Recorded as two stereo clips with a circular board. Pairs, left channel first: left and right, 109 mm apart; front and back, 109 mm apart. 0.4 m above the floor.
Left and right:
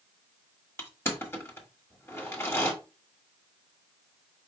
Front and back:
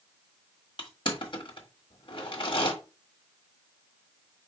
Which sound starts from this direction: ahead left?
Crushing, at 0.8 s.